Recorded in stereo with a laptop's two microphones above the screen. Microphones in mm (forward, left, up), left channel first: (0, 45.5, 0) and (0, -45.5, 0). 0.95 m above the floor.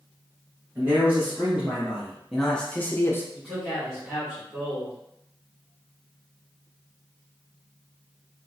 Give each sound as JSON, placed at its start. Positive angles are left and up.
{"t": 0.8, "sound": "a man speaking", "side_deg": -20, "distance_m": 1.5}
{"t": 3.3, "sound": "a man speaking", "side_deg": 5, "distance_m": 2.0}